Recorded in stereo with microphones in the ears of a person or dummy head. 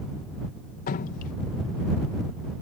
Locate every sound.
0.9 s dripping: 55° left (ahead or behind)